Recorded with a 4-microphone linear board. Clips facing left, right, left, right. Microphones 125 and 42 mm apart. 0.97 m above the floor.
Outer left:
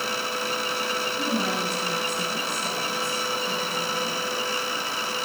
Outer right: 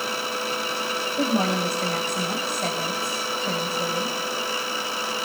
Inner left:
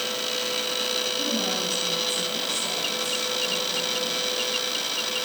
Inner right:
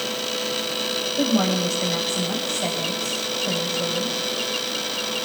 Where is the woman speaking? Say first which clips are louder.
Outer right 6 dB, inner right 6 dB; 85° right, 6 m.